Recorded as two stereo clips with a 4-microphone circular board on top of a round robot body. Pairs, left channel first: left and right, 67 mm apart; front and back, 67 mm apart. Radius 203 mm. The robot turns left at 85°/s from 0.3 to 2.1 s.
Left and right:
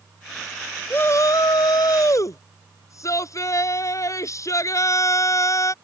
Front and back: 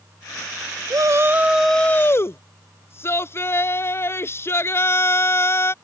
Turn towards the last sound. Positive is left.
turn(degrees=50)